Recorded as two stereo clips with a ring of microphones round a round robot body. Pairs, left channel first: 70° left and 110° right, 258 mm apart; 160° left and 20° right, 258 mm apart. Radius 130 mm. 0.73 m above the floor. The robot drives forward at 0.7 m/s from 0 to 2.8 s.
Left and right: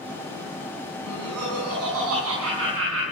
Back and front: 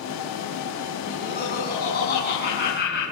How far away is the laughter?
About 6 m.